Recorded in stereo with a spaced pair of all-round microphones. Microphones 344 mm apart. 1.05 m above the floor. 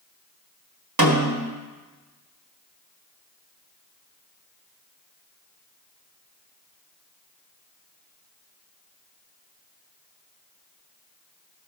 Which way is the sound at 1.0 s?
70° right (ahead or behind).